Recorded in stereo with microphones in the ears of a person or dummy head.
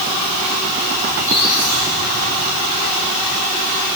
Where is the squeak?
10° right (ahead or behind), 9.5 m.